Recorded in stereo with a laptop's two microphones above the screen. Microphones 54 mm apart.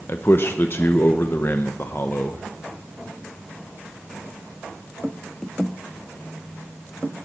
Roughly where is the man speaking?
Left.